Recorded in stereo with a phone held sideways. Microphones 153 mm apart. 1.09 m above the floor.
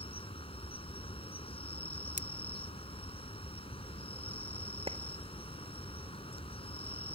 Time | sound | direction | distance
0.0 | an insect | 40° left (ahead or behind) | ?
2.2 | scissors | 65° left (ahead or behind) | ?
4.9 | a clap | 40° right (ahead or behind) | ?